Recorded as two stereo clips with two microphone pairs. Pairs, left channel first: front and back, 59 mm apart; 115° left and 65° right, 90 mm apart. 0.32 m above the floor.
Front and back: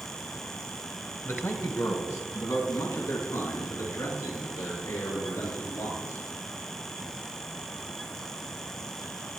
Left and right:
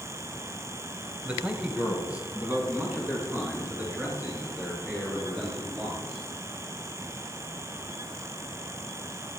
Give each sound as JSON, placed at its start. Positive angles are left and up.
{"t": 1.2, "sound": "a man speaking", "azimuth_deg": 0, "distance_m": 1.4}